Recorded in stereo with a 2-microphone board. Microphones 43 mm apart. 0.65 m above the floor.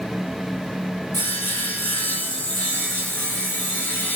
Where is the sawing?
45° left (ahead or behind), 1.5 m.